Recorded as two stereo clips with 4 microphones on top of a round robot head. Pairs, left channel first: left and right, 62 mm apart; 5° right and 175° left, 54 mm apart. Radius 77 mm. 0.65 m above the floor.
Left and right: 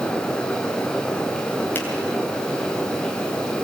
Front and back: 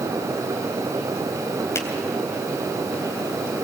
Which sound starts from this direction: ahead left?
A finger snap, at 1.8 s.